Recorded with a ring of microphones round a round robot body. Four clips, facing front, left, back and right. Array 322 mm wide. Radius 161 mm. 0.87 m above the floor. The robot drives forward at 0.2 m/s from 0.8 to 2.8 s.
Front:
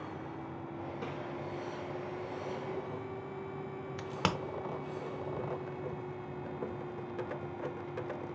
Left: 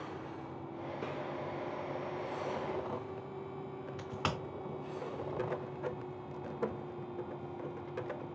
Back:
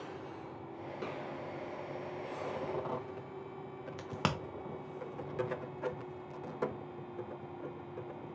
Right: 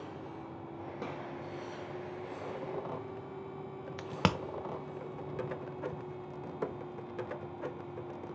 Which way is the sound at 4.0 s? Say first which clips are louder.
Right 6 dB, front 2 dB; 85° right.